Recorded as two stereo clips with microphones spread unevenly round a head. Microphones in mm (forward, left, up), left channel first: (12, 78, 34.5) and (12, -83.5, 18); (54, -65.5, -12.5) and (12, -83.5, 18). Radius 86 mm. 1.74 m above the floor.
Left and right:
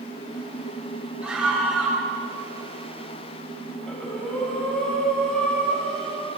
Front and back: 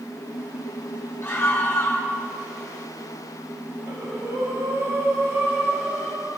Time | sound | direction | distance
1.2 | a scream | 5° right | 9 m
3.9 | breathing | 175° left | 5 m